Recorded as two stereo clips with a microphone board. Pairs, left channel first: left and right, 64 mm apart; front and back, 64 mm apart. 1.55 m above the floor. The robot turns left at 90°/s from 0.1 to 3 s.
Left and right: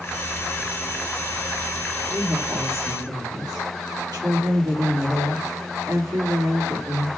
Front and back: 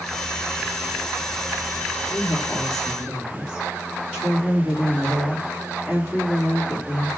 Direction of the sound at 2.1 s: 20° right.